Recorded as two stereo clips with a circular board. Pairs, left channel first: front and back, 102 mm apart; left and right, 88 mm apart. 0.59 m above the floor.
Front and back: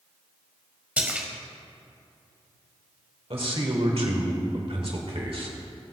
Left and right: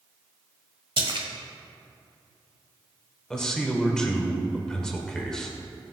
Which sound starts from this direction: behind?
A man speaking, at 3.3 s.